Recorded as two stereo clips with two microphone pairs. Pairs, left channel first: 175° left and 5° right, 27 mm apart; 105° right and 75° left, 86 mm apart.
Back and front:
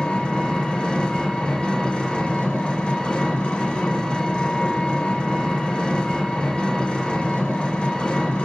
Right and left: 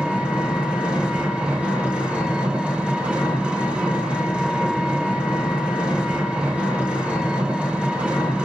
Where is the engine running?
155° left, 0.7 m.